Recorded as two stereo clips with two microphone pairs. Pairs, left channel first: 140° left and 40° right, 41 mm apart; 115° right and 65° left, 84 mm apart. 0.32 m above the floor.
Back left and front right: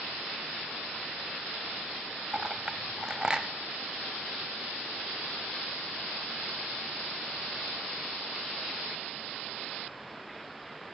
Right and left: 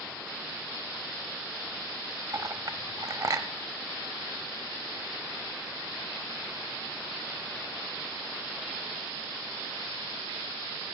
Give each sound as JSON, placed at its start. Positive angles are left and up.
{"t": 2.3, "sound": "a clink", "azimuth_deg": 30, "distance_m": 0.7}